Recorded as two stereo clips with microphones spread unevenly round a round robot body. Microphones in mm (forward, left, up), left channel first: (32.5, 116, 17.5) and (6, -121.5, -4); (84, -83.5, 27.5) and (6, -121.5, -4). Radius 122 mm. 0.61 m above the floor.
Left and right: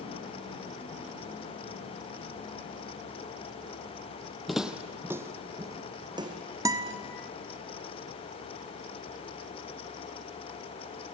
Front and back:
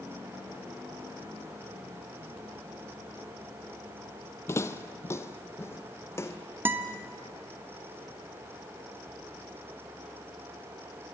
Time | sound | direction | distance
4.5 | footsteps | straight ahead | 1.0 m
6.7 | a guitar | 160° right | 0.9 m